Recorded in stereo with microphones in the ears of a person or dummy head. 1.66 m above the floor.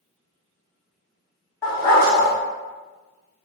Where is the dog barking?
20° left (ahead or behind), 1.3 m.